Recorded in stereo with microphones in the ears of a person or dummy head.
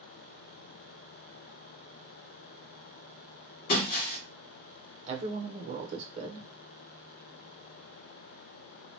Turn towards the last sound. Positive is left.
turn(degrees=-35)  # may be behind; listen again after turning